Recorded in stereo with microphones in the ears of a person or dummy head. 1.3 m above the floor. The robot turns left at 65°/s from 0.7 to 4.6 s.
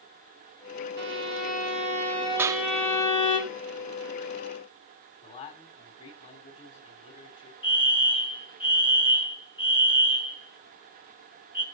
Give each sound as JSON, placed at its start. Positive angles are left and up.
{"t": 1.0, "sound": "a violin", "azimuth_deg": -70, "distance_m": 3.5}
{"t": 2.4, "sound": "a clap", "side_deg": -15, "distance_m": 0.7}
{"t": 5.2, "sound": "a man speaking", "side_deg": 45, "distance_m": 4.5}
{"t": 7.6, "sound": "a fire alarm", "side_deg": 30, "distance_m": 2.5}